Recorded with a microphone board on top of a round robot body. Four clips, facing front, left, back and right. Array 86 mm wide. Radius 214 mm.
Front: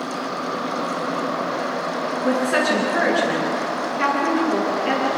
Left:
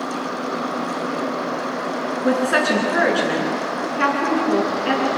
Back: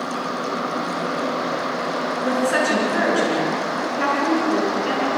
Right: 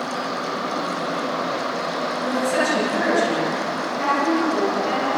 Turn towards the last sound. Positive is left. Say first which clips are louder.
# left 4 dB, front 1 dB
turn(degrees=95)